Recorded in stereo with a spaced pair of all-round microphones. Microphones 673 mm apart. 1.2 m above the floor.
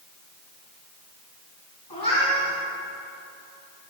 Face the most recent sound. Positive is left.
turn(degrees=35)  # may be behind; listen again after turning